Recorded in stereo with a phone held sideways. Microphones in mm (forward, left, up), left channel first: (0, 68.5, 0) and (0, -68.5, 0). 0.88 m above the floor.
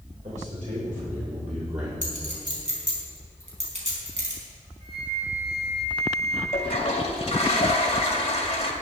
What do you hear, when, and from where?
0.2 s a man speaking: 70° right (ahead or behind), 3.5 m; by 1.9 s 60° right (ahead or behind), 2.5 m
2.0 s a clink: 55° right (ahead or behind), 4.5 m
4.8 s a flute: 45° right (ahead or behind), 4.5 m
6.5 s a toilet flushing: 45° left (ahead or behind), 1.9 m